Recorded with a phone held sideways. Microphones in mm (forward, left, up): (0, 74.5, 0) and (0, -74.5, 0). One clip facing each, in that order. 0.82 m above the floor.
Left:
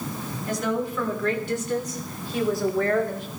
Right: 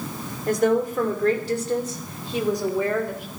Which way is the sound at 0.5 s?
55° right (ahead or behind).